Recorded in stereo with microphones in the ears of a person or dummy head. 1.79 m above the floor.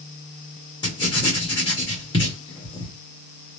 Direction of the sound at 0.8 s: 25° left (ahead or behind).